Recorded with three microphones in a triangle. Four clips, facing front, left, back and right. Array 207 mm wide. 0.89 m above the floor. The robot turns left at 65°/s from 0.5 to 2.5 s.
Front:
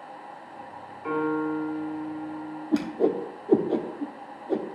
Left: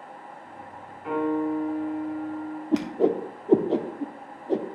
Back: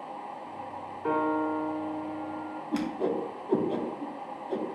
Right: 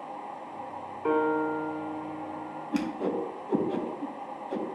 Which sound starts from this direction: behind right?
A piano, at 1.0 s.